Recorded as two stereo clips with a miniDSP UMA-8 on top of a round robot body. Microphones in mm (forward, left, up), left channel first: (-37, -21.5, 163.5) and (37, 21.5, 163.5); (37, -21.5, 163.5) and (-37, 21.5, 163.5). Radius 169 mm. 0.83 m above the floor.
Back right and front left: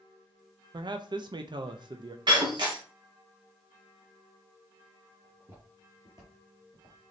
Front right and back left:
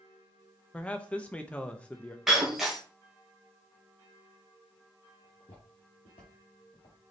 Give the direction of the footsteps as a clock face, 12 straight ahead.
1 o'clock.